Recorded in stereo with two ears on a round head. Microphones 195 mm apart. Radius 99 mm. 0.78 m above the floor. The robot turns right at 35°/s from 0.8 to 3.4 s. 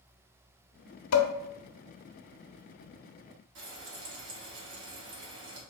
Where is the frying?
55° right (ahead or behind), 1.0 m.